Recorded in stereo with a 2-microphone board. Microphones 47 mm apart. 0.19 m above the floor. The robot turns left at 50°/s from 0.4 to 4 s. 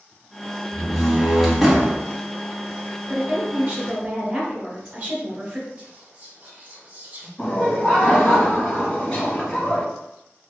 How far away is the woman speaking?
About 1.3 m.